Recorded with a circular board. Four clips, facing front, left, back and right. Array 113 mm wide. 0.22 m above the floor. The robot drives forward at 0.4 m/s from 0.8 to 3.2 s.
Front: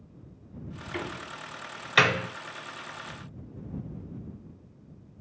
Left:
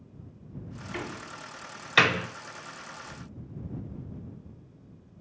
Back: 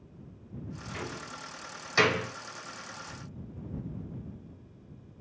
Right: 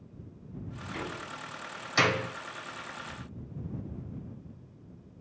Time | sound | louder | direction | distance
0.9 | a door slam | left 1 dB, front 5 dB | 25° left | 1.1 m